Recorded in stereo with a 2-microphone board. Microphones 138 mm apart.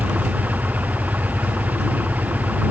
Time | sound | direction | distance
0.0 | an engine running | 10° right (ahead or behind) | ?